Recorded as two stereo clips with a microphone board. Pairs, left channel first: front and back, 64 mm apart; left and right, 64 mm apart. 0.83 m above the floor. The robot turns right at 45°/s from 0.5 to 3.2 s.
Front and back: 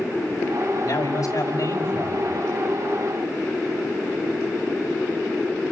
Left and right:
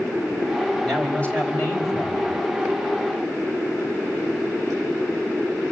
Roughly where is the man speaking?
Ahead.